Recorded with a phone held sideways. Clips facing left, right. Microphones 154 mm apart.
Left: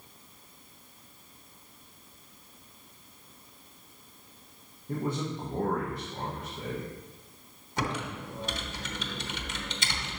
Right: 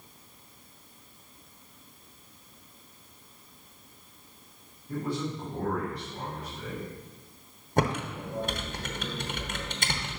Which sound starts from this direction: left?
A man speaking, at 4.9 s.